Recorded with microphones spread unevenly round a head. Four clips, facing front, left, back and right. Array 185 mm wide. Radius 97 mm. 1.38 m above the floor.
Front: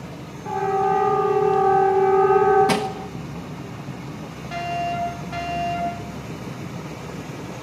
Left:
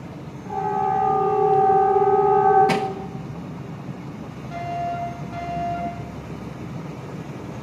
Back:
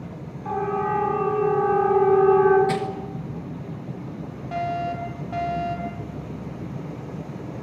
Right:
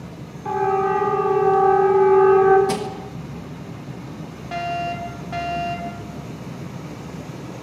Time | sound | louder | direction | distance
0.5 | a siren | right 3 dB, front 4 dB | 90° right | 10 m
2.7 | crushing | left 2 dB, front 3 dB | 25° left | 1.5 m
4.5 | a fire alarm | right 2 dB, front 1 dB | 60° right | 7 m